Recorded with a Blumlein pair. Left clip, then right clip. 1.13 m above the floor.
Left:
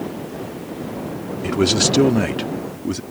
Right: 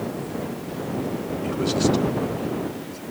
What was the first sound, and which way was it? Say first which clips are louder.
A man speaking: left 6 dB; 65° left.